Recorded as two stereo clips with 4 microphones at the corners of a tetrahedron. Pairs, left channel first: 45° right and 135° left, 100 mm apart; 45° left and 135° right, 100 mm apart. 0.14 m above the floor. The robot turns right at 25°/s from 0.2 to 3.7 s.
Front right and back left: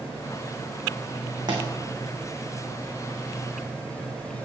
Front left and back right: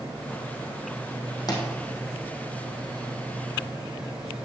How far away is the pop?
About 3 m.